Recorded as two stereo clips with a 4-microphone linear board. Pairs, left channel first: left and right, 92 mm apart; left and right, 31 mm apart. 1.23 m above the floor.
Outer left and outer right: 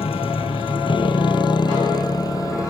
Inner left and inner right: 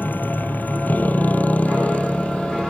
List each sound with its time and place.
0.0 s a motorcycle: 75° left (ahead or behind); by 2.7 s 35° left (ahead or behind)